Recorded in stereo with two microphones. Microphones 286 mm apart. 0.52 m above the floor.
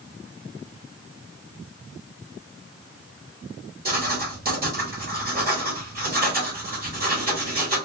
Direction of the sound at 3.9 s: 35° right (ahead or behind).